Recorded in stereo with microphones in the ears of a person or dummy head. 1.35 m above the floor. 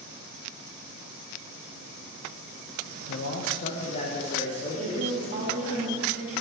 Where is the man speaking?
60° left (ahead or behind), 0.7 m; by 5.8 s 25° left (ahead or behind), 2.5 m.